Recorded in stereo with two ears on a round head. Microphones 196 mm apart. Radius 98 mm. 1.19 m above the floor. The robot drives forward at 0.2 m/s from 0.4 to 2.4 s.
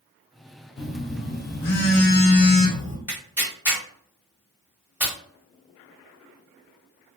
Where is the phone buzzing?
50° left (ahead or behind), 0.7 m; by 3.0 s 40° left (ahead or behind), 0.9 m.